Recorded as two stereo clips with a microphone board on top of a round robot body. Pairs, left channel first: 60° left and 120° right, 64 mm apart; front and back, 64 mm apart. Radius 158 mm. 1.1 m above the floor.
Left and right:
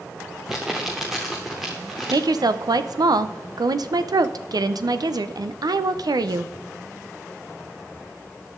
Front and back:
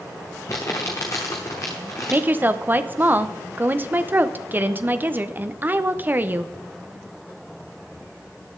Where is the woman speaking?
120° right, 0.9 m.